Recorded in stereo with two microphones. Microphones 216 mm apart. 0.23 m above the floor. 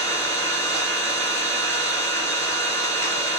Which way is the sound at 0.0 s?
15° left (ahead or behind).